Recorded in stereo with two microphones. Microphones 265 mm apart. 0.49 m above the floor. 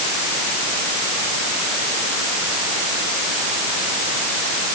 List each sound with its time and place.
Only background noise.